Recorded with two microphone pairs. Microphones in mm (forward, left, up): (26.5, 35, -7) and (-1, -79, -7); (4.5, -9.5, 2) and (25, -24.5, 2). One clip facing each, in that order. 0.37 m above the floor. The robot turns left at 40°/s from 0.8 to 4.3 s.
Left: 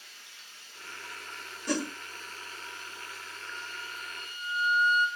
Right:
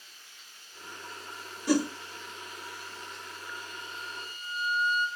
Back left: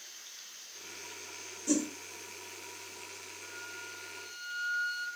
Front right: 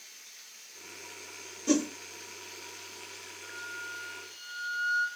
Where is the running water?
85° left, 4 m; by 5.2 s 55° right, 4 m.